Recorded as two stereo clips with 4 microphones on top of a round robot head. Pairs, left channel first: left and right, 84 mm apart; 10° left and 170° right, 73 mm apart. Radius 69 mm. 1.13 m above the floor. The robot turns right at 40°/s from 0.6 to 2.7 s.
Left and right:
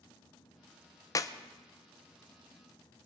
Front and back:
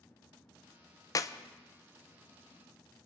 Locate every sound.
1.1 s a clap: 45° left, 0.8 m; by 1.3 s 50° left, 0.8 m